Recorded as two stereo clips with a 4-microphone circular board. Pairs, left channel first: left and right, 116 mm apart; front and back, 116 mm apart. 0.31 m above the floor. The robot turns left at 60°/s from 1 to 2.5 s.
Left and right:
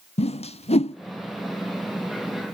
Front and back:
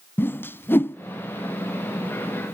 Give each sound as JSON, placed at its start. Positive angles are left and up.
{"t": 0.2, "sound": "a whoosh", "azimuth_deg": 70, "distance_m": 0.6}